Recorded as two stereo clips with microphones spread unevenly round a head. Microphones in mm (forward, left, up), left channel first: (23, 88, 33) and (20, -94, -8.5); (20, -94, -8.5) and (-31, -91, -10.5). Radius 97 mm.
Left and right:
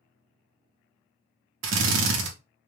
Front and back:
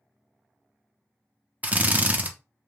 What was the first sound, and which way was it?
A drill, 125° right.